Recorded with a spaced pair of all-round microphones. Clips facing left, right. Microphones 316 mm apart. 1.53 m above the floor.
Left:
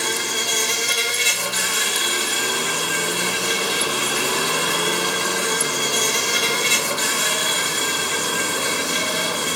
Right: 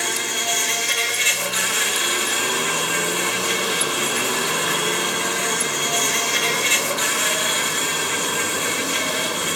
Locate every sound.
0.0 s an insect: 50° left (ahead or behind), 2.5 m